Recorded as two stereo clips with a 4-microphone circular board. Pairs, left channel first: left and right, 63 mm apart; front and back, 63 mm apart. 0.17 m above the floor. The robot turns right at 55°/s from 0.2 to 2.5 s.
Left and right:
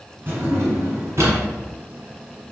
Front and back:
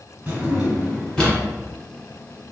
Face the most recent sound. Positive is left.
turn(degrees=-5)